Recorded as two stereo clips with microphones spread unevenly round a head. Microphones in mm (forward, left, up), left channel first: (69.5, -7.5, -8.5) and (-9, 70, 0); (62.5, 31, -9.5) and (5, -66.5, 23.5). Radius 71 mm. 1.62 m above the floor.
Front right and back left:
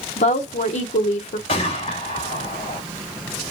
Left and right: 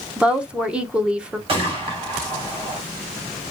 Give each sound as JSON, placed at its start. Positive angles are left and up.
{"t": 0.2, "sound": "a woman speaking", "azimuth_deg": -50, "distance_m": 1.0}
{"t": 1.5, "sound": "a gunshot", "azimuth_deg": -95, "distance_m": 2.5}